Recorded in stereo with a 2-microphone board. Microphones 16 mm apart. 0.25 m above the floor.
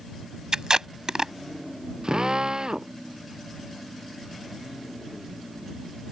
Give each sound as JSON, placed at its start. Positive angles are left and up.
{"t": 0.5, "sound": "tape being pulled", "side_deg": -45}
{"t": 2.0, "sound": "a drill", "side_deg": -40}